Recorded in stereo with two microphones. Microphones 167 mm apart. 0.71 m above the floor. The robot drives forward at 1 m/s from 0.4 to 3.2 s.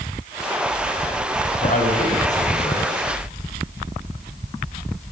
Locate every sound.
1.6 s a man speaking: 50° left (ahead or behind), 5 m; by 2.9 s 40° left (ahead or behind), 6 m